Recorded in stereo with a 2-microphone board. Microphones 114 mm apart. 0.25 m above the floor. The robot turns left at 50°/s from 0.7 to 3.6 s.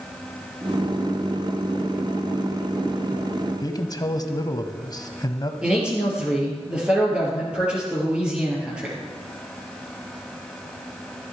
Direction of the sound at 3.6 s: 40° left (ahead or behind).